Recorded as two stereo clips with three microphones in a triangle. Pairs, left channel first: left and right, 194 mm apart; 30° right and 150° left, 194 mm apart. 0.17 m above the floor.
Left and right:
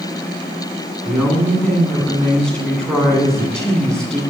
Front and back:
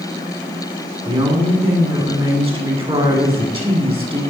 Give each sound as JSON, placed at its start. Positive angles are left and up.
{"t": 1.1, "sound": "a woman speaking", "azimuth_deg": 170, "distance_m": 1.9}